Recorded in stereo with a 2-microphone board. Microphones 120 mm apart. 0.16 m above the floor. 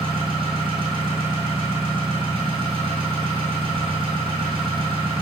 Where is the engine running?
40° right (ahead or behind), 1.8 m.